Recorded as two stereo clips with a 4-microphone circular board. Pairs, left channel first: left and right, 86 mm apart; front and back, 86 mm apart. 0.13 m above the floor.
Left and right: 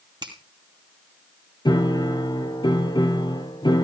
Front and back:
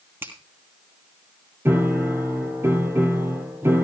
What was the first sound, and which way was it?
A finger snap, 120° right.